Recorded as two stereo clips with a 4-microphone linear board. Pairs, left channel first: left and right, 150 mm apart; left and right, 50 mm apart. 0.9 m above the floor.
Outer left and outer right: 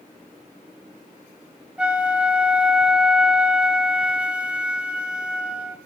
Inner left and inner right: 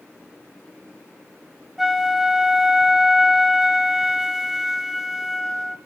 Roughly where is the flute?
Centre.